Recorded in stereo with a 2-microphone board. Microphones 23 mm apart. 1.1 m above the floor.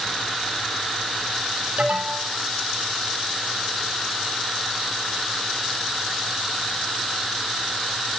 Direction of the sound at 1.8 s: 65° right (ahead or behind).